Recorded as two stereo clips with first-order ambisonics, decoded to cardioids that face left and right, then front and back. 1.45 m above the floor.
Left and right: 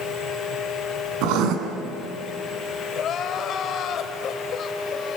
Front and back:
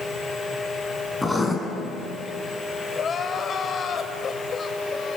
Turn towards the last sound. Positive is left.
turn(degrees=55)